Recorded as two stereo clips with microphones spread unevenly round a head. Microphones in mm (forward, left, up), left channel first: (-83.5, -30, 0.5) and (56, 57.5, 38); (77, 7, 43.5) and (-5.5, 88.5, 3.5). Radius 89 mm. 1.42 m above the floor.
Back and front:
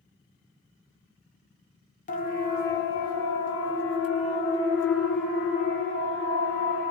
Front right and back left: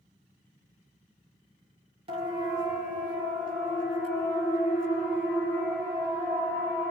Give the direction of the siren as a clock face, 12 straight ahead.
6 o'clock.